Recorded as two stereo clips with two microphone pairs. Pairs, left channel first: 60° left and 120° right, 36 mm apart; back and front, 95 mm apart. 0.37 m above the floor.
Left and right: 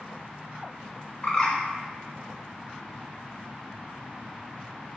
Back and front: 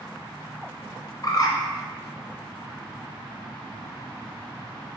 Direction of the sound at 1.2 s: 130° left.